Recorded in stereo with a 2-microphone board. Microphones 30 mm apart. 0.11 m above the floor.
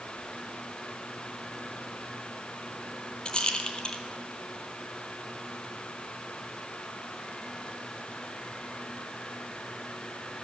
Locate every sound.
3.2 s a rattle: 30° left (ahead or behind), 1.0 m